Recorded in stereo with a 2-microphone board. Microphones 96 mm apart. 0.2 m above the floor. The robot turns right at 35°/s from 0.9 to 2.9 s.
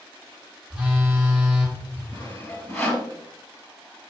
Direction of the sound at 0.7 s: 10° right (ahead or behind).